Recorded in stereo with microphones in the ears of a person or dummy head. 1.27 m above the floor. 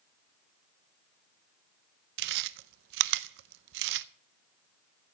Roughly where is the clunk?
No clunk in this recording.